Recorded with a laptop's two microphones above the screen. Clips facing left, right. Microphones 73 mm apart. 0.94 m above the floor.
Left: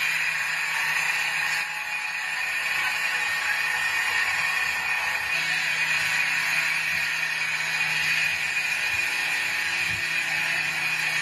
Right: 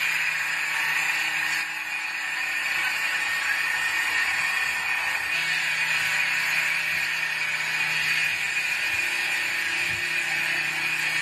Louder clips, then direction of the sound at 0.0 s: Even; 5° left (ahead or behind).